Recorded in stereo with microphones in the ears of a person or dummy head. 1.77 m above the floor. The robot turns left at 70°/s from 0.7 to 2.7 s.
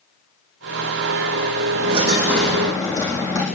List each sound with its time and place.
1.7 s a dropped coin: 130° right, 5.5 m; by 3.5 s 165° left, 5.5 m